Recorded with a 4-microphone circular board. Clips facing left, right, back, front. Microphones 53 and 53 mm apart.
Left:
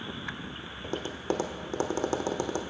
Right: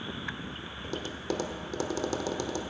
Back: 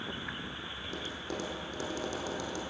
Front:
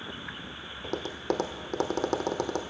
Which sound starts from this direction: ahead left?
Tapping, at 0.8 s.